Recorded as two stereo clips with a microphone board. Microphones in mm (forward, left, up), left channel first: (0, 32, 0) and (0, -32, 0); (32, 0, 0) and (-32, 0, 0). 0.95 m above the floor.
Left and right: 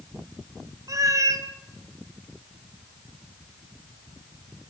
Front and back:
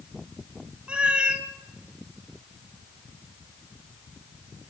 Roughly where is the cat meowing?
Right.